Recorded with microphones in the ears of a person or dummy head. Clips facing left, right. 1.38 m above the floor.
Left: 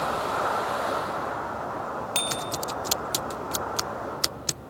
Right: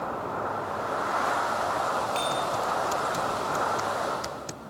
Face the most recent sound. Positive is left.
turn(degrees=65)  # may be behind; listen again after turning